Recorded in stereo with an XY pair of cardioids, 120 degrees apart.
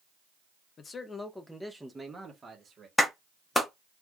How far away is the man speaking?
About 0.7 m.